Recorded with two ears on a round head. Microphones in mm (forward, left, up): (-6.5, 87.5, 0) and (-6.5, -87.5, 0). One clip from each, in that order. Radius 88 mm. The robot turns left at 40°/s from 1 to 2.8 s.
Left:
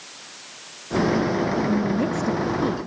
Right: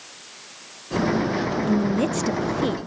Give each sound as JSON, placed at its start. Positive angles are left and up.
{"t": 1.7, "sound": "a woman speaking", "azimuth_deg": -80, "distance_m": 0.5}